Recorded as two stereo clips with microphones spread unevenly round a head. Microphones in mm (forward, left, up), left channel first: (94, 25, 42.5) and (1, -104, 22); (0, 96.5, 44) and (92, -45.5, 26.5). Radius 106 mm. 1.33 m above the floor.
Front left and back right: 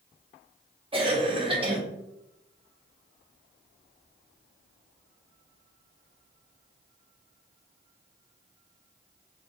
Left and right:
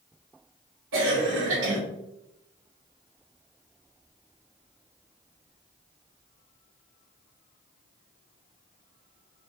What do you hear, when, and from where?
0.9 s a cough: 70° right, 1.7 m